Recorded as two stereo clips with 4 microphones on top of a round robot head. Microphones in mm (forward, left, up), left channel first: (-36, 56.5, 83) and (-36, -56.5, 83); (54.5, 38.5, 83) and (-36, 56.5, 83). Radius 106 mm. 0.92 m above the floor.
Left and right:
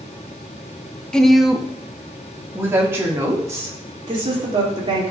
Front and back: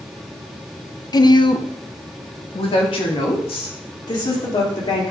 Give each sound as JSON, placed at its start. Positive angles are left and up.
{"t": 1.1, "sound": "a woman speaking", "azimuth_deg": 10, "distance_m": 0.7}
{"t": 4.1, "sound": "a woman speaking", "azimuth_deg": -45, "distance_m": 2.0}